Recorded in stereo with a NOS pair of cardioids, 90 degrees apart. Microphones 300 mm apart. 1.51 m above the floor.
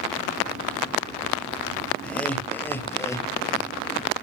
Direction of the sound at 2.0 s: 5° left.